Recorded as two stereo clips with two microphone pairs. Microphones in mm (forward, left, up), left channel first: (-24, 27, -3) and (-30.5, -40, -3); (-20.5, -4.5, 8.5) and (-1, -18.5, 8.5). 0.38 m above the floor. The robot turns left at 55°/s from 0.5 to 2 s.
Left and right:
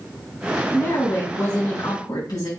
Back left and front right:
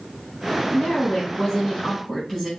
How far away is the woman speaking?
About 3.5 m.